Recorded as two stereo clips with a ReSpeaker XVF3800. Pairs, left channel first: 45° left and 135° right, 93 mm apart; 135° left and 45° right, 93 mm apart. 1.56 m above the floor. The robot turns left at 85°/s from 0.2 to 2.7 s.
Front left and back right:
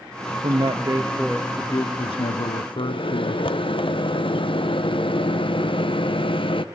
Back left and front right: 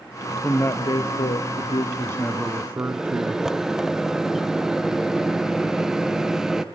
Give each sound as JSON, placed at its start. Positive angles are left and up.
{"t": 0.4, "sound": "a man speaking", "azimuth_deg": -145, "distance_m": 0.8}
{"t": 2.8, "sound": "a microwave", "azimuth_deg": 40, "distance_m": 0.8}